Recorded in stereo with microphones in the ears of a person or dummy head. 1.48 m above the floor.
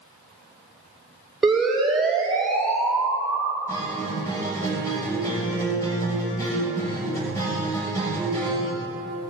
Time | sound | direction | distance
1.4 | a siren | centre (ahead or behind) | 7 m
3.7 | a guitar | 15° left (ahead or behind) | 7 m